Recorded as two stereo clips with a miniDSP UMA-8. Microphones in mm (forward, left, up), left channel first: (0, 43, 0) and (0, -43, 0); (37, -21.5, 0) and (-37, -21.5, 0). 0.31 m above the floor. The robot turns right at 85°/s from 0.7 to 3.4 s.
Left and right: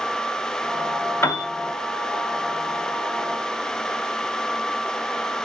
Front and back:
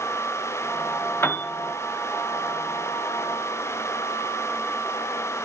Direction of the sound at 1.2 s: 45° left.